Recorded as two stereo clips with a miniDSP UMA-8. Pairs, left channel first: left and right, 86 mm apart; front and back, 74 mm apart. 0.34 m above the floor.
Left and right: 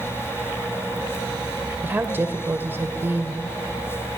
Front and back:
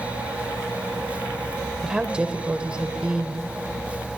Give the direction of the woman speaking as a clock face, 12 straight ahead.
4 o'clock.